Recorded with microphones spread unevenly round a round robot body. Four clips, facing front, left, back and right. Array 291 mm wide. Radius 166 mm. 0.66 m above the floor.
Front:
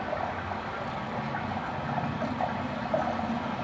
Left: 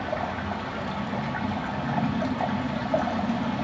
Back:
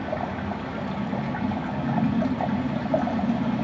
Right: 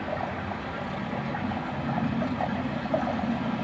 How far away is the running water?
About 5 m.